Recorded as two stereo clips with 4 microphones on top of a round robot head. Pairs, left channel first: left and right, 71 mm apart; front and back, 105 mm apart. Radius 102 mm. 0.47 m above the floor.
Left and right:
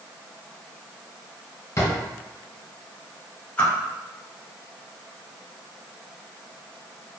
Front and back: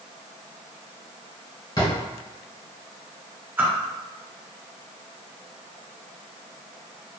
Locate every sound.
1.8 s a drawer: 50° left, 1.3 m
3.6 s a whoosh: 125° left, 1.0 m